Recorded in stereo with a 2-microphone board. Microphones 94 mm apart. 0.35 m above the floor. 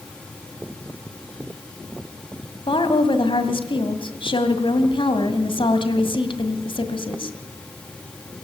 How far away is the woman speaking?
About 2.0 m.